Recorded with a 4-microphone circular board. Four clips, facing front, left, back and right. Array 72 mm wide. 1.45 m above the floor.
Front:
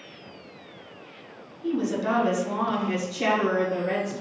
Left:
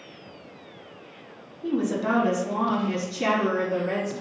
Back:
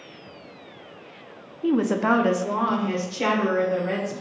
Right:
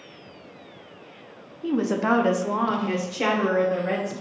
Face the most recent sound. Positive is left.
turn(degrees=-105)